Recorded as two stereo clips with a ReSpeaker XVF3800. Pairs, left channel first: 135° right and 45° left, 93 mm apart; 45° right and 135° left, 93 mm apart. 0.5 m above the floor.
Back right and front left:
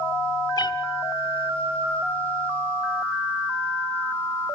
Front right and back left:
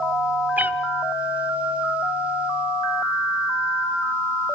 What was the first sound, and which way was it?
A cat meowing, 155° right.